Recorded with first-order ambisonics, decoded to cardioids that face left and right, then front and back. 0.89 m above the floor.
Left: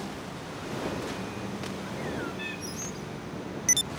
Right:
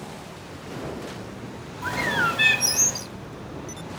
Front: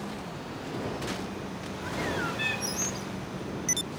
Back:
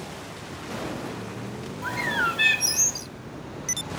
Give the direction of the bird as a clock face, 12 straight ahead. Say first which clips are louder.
Right 16 dB, back 7 dB; 4 o'clock.